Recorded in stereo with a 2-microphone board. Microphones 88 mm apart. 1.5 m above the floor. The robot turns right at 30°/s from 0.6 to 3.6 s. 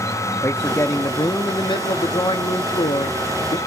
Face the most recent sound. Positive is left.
turn(degrees=115)